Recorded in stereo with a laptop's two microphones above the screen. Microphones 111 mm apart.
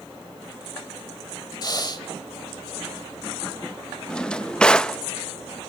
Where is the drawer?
10° left (ahead or behind), 0.5 m.